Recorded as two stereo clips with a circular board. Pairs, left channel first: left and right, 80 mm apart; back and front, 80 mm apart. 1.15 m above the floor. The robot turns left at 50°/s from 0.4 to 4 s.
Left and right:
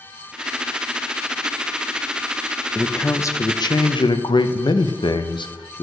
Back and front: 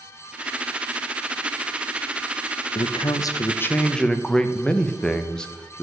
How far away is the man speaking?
About 0.6 m.